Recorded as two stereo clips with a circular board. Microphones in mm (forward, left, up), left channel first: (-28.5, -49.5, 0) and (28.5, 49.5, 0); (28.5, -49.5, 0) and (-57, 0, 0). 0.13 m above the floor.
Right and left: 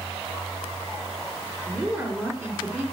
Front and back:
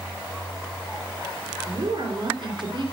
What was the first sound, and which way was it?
A woman speaking, 130° left.